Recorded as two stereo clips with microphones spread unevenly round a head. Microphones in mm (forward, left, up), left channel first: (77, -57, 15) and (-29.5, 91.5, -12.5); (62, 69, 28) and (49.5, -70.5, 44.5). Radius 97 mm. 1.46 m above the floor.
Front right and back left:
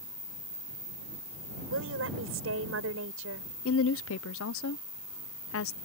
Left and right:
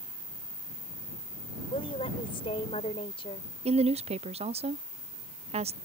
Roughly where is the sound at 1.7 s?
Behind left.